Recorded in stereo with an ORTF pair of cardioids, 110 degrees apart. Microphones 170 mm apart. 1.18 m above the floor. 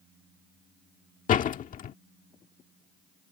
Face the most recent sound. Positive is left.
turn(degrees=50)